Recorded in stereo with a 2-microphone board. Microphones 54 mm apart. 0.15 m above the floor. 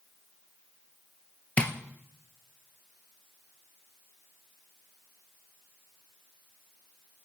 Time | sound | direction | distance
1.6 | tapping | 25° left (ahead or behind) | 0.6 m